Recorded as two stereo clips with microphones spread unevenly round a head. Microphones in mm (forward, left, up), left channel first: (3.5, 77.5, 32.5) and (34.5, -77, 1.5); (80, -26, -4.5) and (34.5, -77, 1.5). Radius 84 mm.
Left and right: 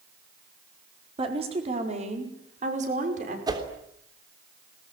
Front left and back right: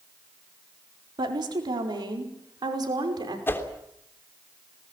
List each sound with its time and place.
1.2 s a woman speaking: 140° right, 4 m; by 3.4 s 125° right, 5.5 m
3.5 s a whoosh: 10° right, 3 m